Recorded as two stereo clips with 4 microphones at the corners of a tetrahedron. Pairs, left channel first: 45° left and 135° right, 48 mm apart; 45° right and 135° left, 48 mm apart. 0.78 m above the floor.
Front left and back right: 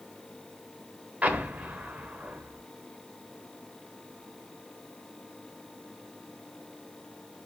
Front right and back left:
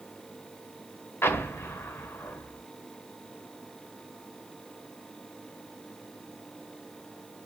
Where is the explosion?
75° right, 1.0 m.